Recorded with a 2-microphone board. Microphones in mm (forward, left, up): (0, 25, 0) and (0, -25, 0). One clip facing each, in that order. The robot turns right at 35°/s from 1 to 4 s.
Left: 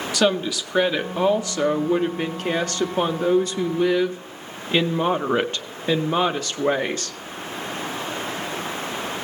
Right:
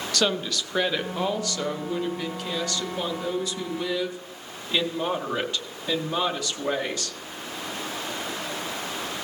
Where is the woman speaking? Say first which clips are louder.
Left 5 dB; 15° left, 0.7 m; by 7.2 s 120° left, 0.7 m.